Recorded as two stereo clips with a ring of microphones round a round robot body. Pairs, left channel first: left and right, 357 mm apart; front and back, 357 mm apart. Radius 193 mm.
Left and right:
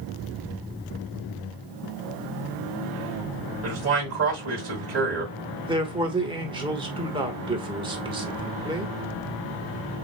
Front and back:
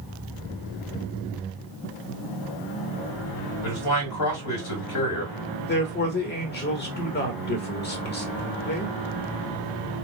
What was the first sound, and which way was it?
A man speaking, 40° right.